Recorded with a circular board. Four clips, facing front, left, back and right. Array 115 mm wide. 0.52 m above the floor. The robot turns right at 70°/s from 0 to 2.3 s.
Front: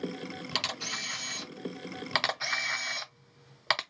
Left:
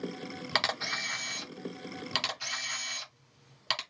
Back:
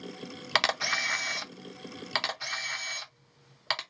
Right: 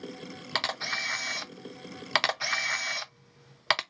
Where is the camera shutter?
170° left, 0.6 m; by 3.8 s 70° right, 0.6 m.